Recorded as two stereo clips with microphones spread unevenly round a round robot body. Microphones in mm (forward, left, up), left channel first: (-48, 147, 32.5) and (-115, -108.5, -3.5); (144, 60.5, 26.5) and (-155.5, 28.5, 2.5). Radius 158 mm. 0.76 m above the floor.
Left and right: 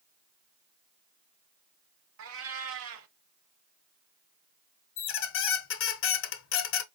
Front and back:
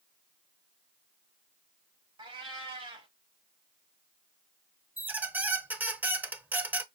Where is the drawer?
I don't hear a drawer.